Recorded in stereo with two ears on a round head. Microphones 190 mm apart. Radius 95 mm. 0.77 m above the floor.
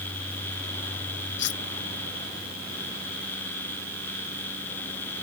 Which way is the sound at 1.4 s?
60° left (ahead or behind).